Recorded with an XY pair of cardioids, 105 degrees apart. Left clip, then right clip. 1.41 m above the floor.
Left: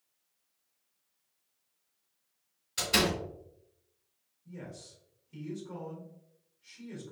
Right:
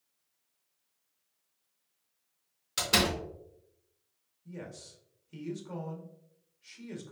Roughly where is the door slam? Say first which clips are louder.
Right 1 dB; ahead right.